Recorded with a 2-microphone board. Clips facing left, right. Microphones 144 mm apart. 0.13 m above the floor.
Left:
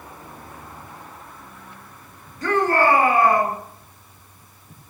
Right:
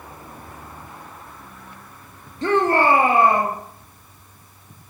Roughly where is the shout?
Right.